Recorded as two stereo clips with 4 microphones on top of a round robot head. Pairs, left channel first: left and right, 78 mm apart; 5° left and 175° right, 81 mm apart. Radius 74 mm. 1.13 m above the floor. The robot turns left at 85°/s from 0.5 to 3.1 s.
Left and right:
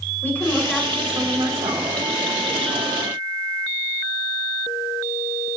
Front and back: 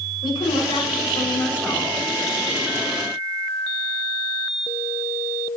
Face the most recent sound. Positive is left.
turn(degrees=160)